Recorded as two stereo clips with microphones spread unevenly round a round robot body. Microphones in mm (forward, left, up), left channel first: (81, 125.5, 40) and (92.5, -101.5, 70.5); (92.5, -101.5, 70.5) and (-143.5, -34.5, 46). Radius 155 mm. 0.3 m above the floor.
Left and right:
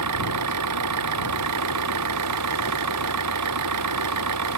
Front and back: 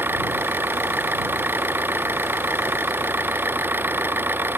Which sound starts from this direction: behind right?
An engine running, at 0.0 s.